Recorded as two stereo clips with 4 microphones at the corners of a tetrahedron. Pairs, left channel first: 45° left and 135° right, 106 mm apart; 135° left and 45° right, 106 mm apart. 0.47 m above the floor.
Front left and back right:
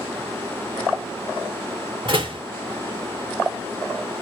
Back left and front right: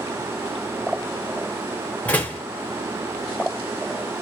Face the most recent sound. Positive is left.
turn(degrees=-150)